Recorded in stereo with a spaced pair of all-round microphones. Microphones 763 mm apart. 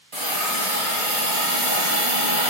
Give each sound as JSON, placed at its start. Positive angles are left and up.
{"t": 0.1, "sound": "a hiss", "side_deg": -50, "distance_m": 1.2}